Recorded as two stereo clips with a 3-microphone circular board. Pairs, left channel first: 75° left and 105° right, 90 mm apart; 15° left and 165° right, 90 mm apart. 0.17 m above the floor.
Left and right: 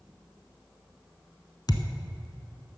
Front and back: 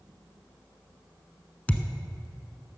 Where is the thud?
85° left, 1.0 m.